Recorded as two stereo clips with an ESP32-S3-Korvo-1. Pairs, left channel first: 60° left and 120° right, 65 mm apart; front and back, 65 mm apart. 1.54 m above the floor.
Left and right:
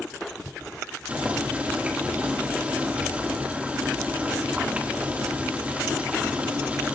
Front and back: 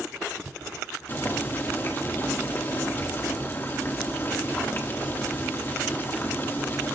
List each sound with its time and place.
1.1 s boiling: 50° right, 1.9 m